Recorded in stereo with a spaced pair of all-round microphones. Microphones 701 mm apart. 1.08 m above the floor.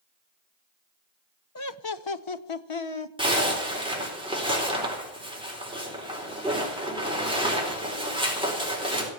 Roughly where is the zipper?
Centre.